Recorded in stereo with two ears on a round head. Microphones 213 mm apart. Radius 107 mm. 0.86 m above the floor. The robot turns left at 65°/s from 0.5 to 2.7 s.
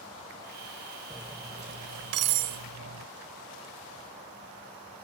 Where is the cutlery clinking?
Centre (ahead or behind); by 3.1 s 80° right.